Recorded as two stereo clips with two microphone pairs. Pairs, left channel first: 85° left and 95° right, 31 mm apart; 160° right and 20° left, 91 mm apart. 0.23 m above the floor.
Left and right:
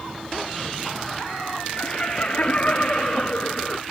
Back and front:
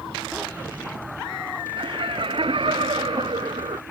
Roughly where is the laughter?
Ahead left.